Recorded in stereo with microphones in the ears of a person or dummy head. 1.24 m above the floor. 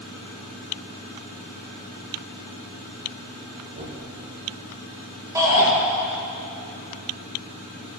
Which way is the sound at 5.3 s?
20° right (ahead or behind).